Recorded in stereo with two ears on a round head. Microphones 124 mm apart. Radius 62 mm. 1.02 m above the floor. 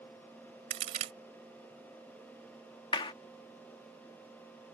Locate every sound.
0.7 s a crack: 50° right (ahead or behind)
2.9 s a clap: 35° left (ahead or behind)